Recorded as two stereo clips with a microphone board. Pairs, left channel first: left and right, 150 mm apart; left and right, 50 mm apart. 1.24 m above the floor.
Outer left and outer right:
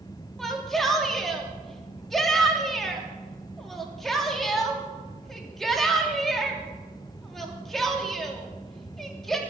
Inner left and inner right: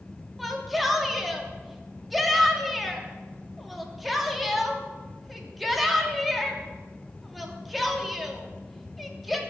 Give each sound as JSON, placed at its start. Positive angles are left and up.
{"t": 0.4, "sound": "a shout", "side_deg": 0, "distance_m": 3.0}